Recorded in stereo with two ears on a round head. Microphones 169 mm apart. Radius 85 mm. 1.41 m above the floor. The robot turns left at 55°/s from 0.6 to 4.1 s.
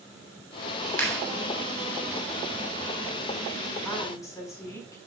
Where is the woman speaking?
5° left (ahead or behind), 5.5 m; by 5.0 s 20° left (ahead or behind), 5.5 m.